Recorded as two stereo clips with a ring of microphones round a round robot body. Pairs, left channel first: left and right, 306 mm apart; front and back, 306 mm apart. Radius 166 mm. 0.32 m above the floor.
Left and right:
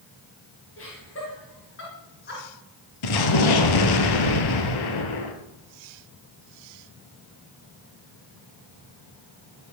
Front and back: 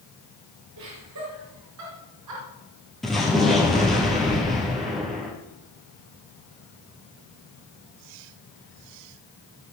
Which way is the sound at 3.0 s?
90° left.